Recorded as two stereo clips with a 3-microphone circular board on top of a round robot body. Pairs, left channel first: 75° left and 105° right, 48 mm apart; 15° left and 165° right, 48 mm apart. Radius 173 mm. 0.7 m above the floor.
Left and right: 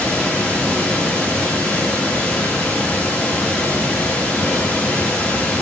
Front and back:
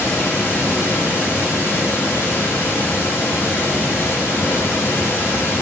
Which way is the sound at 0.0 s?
15° left.